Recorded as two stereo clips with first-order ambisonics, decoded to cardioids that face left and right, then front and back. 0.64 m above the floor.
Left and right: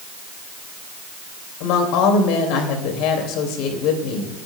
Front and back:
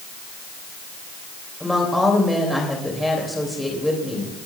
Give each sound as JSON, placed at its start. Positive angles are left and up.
{"t": 1.6, "sound": "a woman speaking", "azimuth_deg": 85, "distance_m": 3.0}